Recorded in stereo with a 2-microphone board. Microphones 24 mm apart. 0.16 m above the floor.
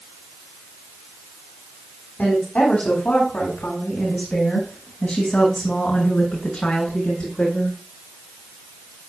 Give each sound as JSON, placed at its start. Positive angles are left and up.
{"t": 2.2, "sound": "a woman speaking", "side_deg": 70, "distance_m": 10.0}